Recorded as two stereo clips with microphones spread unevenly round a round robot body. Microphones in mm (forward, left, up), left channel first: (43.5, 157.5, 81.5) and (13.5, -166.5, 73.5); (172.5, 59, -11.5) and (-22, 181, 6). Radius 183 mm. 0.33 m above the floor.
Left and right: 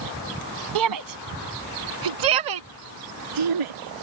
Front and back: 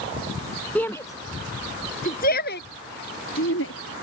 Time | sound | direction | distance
0.8 | a shout | 120° right | ?